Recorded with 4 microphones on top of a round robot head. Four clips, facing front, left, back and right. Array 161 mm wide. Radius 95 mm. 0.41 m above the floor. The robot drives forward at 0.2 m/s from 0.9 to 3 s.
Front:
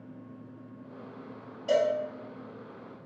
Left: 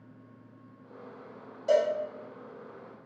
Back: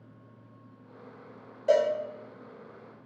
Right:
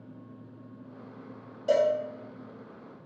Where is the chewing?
I don't hear chewing.